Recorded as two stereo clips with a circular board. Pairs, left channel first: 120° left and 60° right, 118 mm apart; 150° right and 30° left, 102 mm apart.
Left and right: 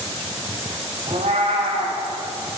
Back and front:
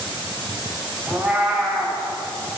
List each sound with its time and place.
1.1 s a cat meowing: 50° right, 3.5 m